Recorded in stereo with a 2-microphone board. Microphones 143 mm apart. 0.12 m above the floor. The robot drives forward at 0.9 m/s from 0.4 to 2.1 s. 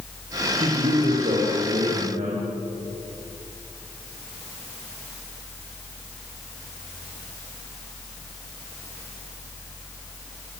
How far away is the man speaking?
About 7.5 m.